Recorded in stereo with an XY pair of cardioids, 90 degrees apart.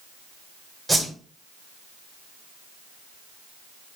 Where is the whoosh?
Straight ahead, 5.5 m.